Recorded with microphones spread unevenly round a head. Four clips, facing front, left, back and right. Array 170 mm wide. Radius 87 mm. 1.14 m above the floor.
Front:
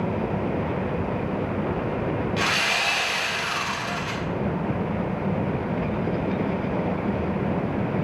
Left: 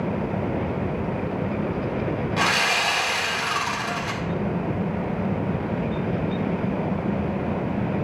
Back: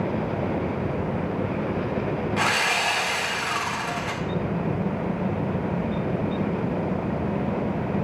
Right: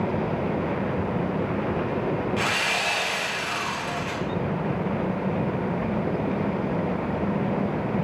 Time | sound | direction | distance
2.4 | sawing | 140° left | 1.8 m